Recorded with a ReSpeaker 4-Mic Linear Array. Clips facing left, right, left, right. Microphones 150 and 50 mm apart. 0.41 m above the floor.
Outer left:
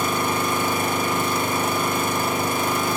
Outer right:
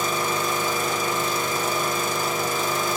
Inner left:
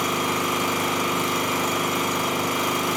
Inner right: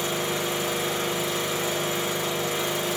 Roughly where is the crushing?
I don't hear crushing.